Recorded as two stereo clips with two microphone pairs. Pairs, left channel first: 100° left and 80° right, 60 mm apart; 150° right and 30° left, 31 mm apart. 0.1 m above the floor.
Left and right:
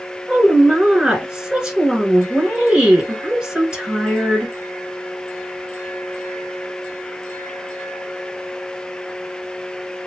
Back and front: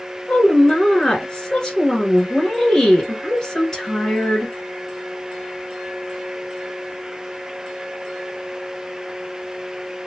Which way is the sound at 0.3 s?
140° right.